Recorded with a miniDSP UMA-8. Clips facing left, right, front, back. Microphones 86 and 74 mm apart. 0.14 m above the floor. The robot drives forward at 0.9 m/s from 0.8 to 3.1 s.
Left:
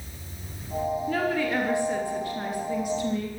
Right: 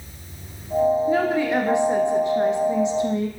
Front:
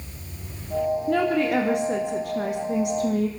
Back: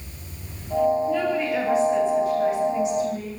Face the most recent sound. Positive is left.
turn(degrees=-25)